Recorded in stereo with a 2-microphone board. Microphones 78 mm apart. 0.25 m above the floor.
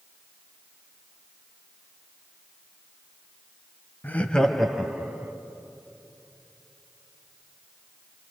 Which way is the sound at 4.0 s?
25° left (ahead or behind).